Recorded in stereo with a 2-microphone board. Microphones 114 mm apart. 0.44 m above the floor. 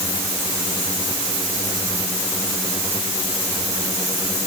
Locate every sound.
Only background noise.